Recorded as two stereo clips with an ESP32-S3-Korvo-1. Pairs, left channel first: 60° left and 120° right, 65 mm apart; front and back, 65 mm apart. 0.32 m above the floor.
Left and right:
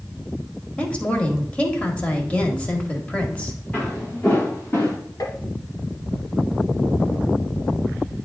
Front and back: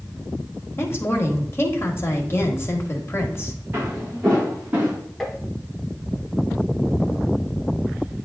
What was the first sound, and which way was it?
A woman speaking, straight ahead.